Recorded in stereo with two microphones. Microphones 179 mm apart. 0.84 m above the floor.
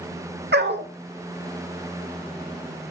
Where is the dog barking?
70° right (ahead or behind), 1.0 m.